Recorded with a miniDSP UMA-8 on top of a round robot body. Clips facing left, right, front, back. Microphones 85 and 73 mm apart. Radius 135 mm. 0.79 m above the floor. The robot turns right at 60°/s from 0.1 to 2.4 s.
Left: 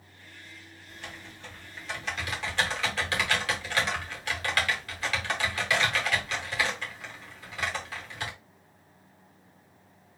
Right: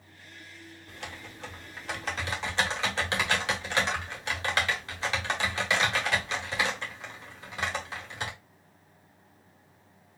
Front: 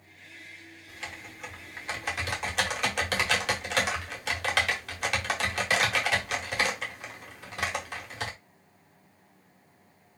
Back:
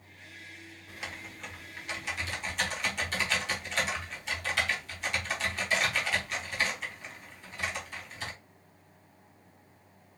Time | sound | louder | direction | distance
0.9 | typing on a keyboard | right 1 dB, even | 115° right | 1.0 m